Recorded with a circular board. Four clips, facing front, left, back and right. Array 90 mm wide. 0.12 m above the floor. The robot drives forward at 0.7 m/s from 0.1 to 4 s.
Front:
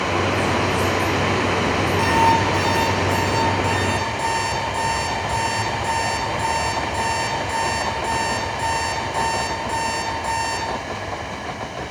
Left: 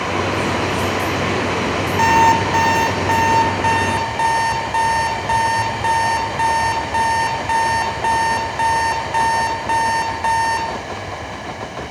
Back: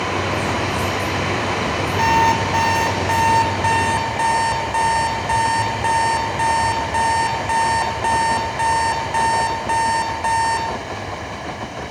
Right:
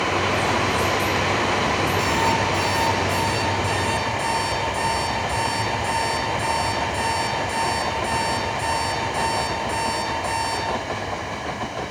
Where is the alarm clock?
110° left, 4 m; by 10.7 s 125° left, 4.5 m.